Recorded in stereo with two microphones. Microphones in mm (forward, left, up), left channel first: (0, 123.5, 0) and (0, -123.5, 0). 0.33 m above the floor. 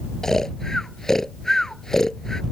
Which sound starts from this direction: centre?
Snoring, at 0.2 s.